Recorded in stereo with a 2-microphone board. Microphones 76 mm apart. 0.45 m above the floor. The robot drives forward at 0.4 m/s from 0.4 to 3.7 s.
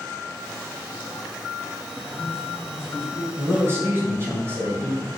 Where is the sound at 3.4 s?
35° right (ahead or behind), 2 m.